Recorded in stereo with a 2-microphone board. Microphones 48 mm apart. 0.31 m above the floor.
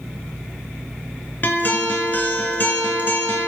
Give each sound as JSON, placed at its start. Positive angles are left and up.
{"t": 1.4, "sound": "a guitar", "side_deg": 35, "distance_m": 0.8}